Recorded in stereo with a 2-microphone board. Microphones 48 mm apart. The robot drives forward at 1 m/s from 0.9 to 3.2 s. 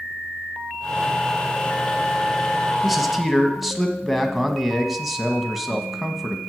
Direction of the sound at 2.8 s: Centre (ahead or behind).